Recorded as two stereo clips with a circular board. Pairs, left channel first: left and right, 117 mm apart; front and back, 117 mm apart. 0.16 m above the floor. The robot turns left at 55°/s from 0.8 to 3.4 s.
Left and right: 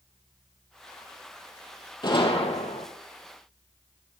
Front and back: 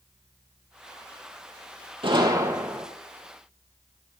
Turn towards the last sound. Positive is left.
turn(degrees=65)